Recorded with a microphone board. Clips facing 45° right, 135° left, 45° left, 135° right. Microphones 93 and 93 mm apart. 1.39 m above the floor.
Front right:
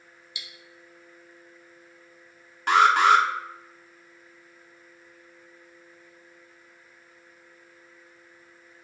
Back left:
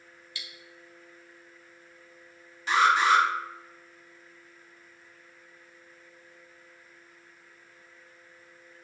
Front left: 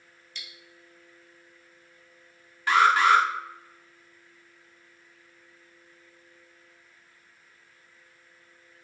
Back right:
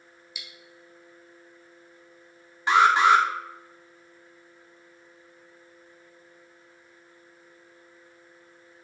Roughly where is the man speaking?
No man speaking in this recording.